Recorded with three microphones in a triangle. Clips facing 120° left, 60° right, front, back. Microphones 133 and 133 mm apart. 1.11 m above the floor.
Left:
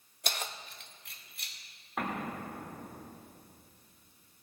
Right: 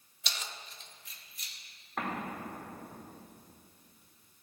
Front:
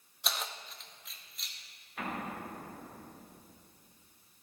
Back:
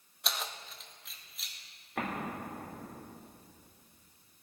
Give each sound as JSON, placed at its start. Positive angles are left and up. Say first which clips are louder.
{"t": 0.2, "sound": "keys jangling", "louder": "left 5 dB, even", "azimuth_deg": 90, "distance_m": 0.5}
{"t": 2.0, "sound": "an explosion", "louder": "left 1 dB, back 2 dB", "azimuth_deg": -155, "distance_m": 3.0}